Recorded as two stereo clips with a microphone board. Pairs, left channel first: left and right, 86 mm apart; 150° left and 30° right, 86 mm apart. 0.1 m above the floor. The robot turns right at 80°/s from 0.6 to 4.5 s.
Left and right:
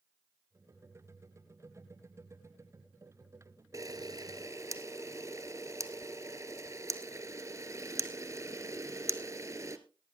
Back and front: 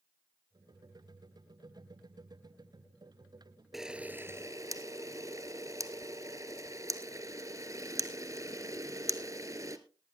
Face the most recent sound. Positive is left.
turn(degrees=-55)